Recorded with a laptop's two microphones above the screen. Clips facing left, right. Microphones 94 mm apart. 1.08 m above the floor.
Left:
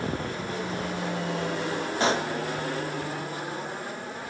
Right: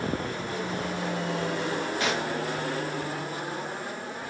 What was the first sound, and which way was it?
A pop, 30° left (ahead or behind).